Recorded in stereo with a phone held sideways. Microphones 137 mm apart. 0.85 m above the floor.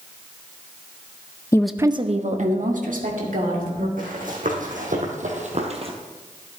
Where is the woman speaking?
20° left (ahead or behind), 0.6 m; by 3.9 s 80° right, 3 m.